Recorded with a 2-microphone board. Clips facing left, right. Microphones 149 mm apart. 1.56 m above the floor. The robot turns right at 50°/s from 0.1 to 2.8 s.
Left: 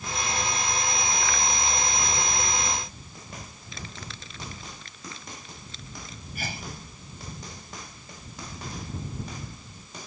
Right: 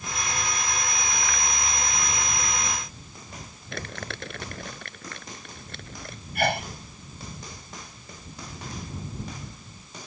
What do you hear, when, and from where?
3.7 s crumpling: 65° right (ahead or behind)
6.3 s a sneeze: 70° right (ahead or behind)